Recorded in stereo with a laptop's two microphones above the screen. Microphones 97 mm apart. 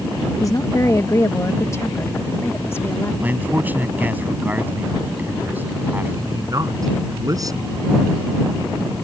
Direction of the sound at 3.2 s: 15° right (ahead or behind).